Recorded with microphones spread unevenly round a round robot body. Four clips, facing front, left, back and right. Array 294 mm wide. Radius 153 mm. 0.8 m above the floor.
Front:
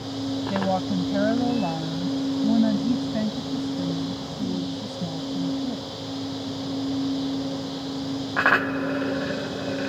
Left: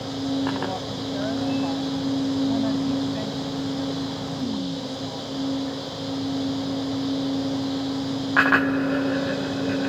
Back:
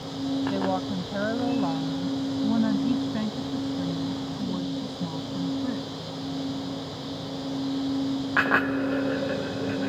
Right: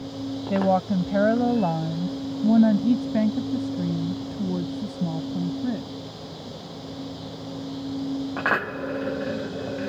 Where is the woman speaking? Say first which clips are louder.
Right 6 dB, front 2 dB; 75° right; by 5.9 s 90° right.